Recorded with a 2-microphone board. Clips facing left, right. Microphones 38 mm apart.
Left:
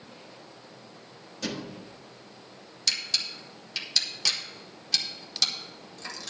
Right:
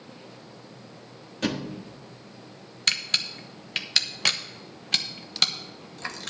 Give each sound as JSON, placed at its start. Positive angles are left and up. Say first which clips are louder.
{"t": 1.4, "sound": "a thud", "louder": "right 6 dB", "side_deg": -40, "distance_m": 1.3}
{"t": 2.9, "sound": "a camera shutter", "louder": "right 4 dB", "side_deg": -45, "distance_m": 1.0}